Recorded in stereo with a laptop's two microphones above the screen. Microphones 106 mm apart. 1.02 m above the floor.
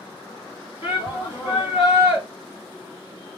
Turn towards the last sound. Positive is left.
turn(degrees=50)  # may be behind; listen again after turning